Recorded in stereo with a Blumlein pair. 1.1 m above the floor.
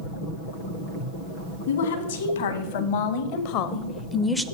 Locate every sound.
1.7 s a woman speaking: 65° left, 2.0 m; by 4.5 s 5° right, 0.5 m